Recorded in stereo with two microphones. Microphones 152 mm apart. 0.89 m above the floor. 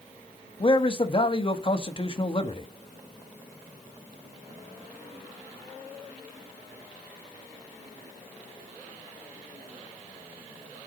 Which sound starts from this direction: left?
A man speaking, at 0.6 s.